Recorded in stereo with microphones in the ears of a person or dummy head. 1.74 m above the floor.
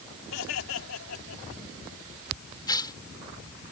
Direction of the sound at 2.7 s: 25° left (ahead or behind).